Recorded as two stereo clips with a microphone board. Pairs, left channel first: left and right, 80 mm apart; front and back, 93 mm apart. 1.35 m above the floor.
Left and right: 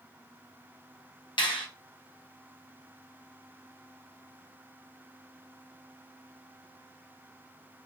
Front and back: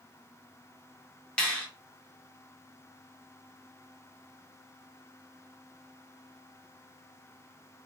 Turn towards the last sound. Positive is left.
turn(degrees=80)